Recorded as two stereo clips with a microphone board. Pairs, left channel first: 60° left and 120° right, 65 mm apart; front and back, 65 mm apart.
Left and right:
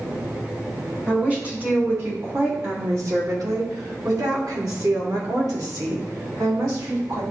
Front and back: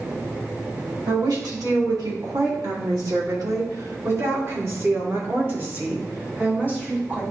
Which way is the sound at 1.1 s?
170° left.